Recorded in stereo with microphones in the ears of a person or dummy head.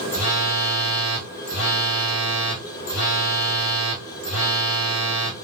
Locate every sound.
0.1 s a phone buzzing: 70° left (ahead or behind), 2 m